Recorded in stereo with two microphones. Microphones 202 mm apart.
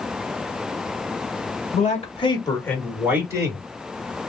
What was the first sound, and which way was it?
A man speaking, 40° left (ahead or behind).